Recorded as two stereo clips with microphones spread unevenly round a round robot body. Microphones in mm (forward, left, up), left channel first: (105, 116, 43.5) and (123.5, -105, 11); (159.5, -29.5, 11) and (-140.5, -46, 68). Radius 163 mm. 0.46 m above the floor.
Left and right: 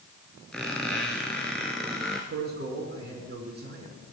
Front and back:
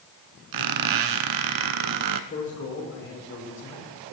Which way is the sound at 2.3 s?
45° right.